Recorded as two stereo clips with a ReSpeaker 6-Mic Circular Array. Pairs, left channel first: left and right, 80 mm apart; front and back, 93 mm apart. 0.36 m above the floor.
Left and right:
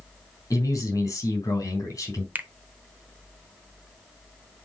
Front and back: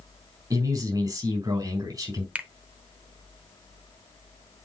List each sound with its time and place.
0.5 s a man speaking: 135° left, 3.5 m
2.4 s a finger snap: 120° right, 0.6 m